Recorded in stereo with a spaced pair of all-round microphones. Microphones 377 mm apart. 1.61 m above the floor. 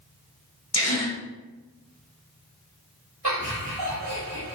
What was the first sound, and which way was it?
A gasp, 40° left (ahead or behind).